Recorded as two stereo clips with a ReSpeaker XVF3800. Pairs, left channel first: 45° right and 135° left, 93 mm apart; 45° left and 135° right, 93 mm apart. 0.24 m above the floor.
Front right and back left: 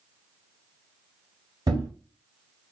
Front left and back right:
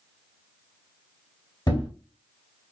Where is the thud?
90° left, 3 m.